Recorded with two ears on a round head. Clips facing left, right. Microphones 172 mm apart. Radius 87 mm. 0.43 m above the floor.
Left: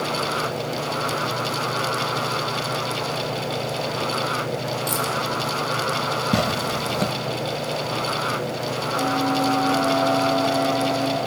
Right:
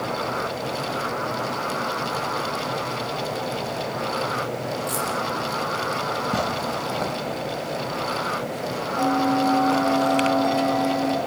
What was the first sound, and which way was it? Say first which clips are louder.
Keys jangling: left 1 dB; 30° left (ahead or behind).